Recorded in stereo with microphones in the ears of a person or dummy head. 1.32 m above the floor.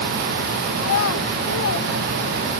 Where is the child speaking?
80° left; by 2.6 s 60° left (ahead or behind).